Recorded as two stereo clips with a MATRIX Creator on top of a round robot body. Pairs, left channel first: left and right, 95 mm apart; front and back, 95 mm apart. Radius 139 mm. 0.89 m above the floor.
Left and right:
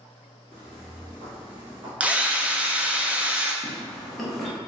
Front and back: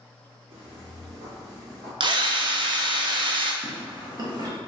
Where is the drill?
165° right, 0.6 m.